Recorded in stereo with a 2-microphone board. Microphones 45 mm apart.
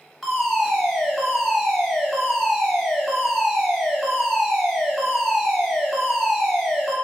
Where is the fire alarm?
Centre (ahead or behind), 2 m.